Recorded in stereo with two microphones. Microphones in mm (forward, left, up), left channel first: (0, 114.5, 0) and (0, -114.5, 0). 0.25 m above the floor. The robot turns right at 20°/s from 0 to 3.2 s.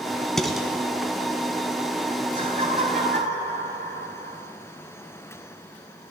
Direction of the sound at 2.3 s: 35° right (ahead or behind).